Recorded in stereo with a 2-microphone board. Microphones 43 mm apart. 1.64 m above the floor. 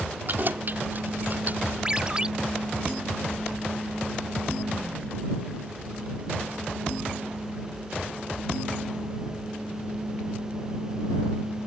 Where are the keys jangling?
50° right (ahead or behind); by 1.8 s 45° right (ahead or behind).